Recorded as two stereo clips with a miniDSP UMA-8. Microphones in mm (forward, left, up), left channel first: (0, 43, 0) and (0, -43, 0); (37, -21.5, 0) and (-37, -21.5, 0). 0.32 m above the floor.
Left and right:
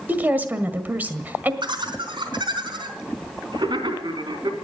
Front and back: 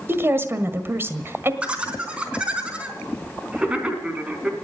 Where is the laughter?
105° right, 3.5 m.